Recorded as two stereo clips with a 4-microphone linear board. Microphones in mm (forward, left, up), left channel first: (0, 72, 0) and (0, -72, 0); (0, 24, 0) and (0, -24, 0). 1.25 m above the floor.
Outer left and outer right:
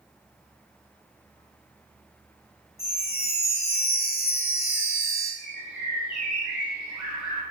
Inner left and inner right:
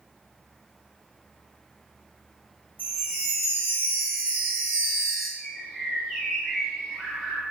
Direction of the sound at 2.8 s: 45° left (ahead or behind).